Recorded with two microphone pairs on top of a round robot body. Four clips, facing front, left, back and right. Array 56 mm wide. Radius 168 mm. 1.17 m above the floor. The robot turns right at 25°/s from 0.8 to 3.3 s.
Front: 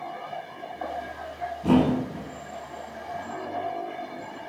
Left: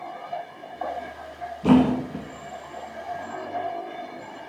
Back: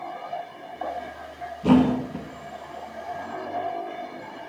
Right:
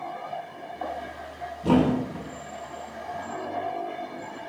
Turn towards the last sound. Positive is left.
turn(degrees=145)